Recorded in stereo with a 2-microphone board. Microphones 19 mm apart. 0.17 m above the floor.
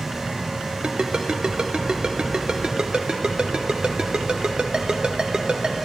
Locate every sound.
0.8 s a ringtone: 50° right (ahead or behind), 1.0 m